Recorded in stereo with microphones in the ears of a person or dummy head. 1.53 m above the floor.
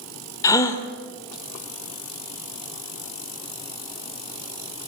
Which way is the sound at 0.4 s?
20° left (ahead or behind).